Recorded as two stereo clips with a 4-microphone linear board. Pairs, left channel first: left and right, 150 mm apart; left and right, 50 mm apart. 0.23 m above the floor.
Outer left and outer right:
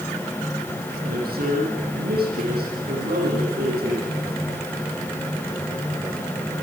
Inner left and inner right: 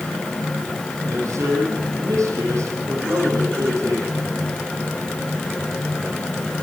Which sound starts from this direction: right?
A man speaking, at 1.0 s.